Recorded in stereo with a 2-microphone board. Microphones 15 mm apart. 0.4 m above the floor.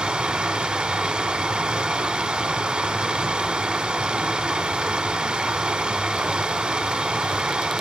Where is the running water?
85° right, 1.1 m.